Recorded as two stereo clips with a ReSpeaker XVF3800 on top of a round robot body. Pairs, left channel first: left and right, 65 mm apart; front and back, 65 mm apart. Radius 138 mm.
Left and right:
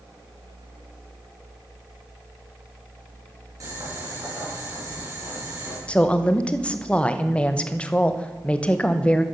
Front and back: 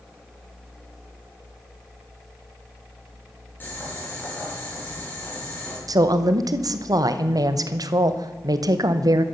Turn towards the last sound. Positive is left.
turn(degrees=160)